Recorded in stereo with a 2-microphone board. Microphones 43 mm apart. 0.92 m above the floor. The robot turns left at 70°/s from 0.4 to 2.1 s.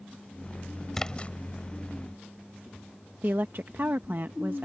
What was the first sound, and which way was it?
A splash, 10° left (ahead or behind).